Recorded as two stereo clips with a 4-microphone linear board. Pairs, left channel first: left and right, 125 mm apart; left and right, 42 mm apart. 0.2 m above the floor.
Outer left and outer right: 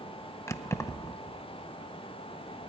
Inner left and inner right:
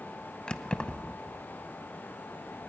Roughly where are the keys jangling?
Left.